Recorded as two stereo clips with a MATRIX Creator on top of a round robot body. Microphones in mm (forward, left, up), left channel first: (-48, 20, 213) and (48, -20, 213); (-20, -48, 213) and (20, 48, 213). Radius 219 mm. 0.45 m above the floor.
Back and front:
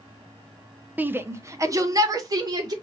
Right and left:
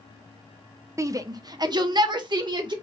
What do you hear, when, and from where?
1.0 s a shout: 40° left, 0.8 m; by 2.7 s 25° left, 1.5 m